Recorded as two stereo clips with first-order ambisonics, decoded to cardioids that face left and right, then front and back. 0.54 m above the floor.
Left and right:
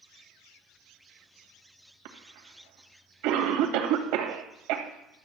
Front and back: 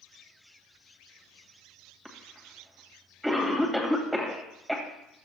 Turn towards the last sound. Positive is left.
turn(degrees=-95)